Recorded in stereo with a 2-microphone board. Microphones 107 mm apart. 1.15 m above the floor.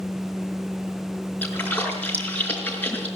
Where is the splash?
15° left (ahead or behind), 5 m.